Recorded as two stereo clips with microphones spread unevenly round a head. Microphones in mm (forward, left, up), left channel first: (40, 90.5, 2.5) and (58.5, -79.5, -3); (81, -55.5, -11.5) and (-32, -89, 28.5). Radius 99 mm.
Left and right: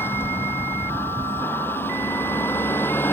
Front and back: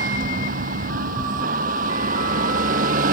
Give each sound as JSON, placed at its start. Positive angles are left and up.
{"t": 0.0, "sound": "a vehicle", "azimuth_deg": 175}